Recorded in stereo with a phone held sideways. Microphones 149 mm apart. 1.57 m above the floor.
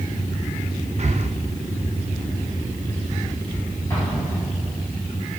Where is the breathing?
45° right (ahead or behind), 0.7 m.